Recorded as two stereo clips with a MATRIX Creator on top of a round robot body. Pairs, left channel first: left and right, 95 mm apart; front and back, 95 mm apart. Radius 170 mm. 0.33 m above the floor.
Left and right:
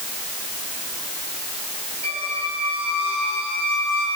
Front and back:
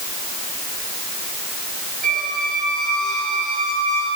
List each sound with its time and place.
2.0 s a squeak: 85° right, 8 m